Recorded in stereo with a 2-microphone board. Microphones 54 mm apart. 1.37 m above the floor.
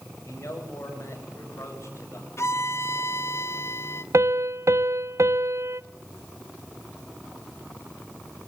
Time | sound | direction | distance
0.2 | a man speaking | 55° left (ahead or behind) | 8 m
2.4 | a violin | 55° left (ahead or behind) | 1.0 m
4.1 | a piano | 60° right (ahead or behind) | 0.6 m